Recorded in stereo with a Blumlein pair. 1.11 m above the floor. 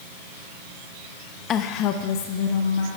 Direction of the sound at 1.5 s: 30° left.